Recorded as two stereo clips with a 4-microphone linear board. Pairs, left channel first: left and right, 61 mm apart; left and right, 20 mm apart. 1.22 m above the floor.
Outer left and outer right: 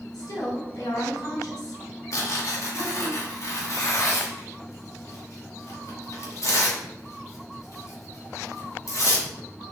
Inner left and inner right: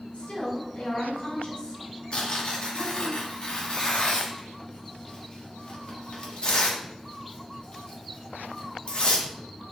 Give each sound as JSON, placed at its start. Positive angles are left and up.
{"t": 0.1, "sound": "a woman speaking", "side_deg": 85, "distance_m": 3.5}
{"t": 2.1, "sound": "tearing paper", "side_deg": 60, "distance_m": 1.9}